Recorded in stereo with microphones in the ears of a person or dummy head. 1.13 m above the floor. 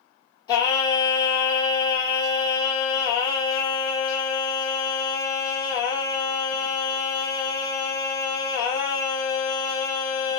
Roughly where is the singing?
Left.